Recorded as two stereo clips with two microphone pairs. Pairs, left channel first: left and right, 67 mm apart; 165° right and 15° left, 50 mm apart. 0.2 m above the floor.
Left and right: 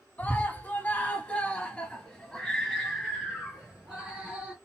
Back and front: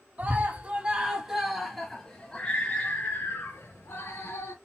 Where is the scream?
45° left, 1.4 m; by 4.5 s 170° right, 1.9 m.